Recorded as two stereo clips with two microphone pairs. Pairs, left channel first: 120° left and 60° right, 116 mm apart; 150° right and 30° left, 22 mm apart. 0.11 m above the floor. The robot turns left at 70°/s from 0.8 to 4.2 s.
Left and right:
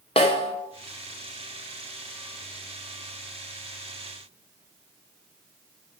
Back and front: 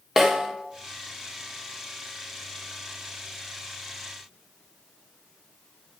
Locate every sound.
0.2 s a snare drum: 95° left, 2.5 m